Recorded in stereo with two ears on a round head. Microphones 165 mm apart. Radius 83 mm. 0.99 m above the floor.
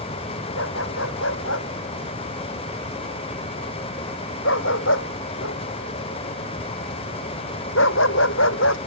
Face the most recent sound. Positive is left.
turn(degrees=75)  # may be behind; listen again after turning